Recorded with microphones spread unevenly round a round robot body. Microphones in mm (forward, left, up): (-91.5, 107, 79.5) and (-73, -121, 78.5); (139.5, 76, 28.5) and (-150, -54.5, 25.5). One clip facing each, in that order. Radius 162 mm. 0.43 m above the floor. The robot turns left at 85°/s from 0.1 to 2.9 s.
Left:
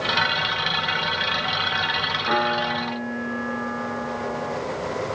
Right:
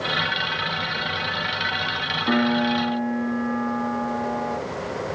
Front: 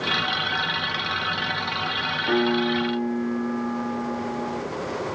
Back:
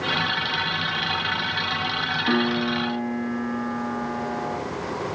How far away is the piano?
About 3.5 m.